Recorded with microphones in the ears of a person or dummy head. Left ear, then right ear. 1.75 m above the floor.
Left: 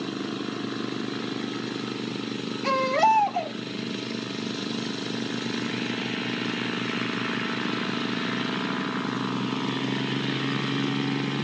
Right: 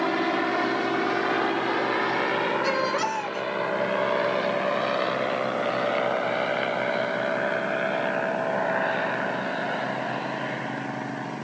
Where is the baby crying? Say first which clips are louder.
Left 4 dB; 40° right (ahead or behind), 1.8 m.